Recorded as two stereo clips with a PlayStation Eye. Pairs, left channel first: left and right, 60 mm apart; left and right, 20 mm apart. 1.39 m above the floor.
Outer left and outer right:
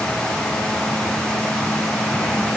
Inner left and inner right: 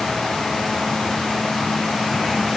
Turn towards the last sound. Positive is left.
No sound to turn to.